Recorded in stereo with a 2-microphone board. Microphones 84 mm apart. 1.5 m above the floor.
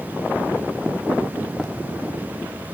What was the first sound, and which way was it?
Running footsteps, 5° left (ahead or behind).